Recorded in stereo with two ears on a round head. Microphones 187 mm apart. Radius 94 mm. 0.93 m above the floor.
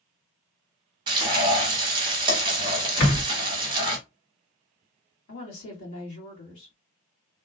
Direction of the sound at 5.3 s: 65° left (ahead or behind).